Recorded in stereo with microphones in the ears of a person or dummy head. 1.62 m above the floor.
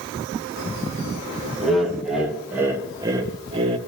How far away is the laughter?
About 2.5 m.